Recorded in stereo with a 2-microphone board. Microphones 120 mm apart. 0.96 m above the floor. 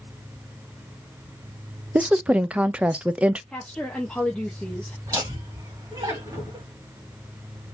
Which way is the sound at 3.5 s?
10° left (ahead or behind).